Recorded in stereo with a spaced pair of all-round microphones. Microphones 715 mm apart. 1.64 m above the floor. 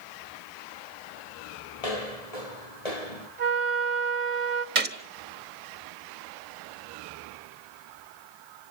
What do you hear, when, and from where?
1.8 s footsteps: 55° left (ahead or behind), 2.5 m
3.4 s a flute: 45° right (ahead or behind), 1.5 m
4.8 s a gunshot: 80° right, 1.5 m